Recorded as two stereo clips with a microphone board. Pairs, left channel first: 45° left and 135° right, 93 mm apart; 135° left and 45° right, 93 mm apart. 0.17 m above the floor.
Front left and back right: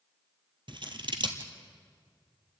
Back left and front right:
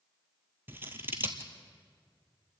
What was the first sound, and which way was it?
Scissors, 110° right.